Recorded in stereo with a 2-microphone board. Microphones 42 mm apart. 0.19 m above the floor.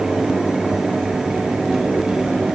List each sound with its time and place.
Only background noise.